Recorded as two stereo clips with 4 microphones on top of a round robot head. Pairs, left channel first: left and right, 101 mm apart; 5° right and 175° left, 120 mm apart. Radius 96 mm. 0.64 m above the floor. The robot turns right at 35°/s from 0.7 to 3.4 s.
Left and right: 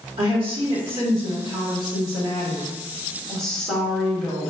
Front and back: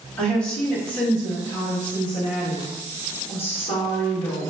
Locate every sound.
0.2 s a woman speaking: 90° right, 1.4 m; by 4.5 s 5° left, 1.4 m